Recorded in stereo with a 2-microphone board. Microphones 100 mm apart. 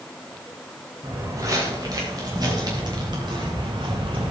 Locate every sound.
1.0 s footsteps: 35° right (ahead or behind), 5.5 m; by 4.3 s 60° right (ahead or behind), 4.5 m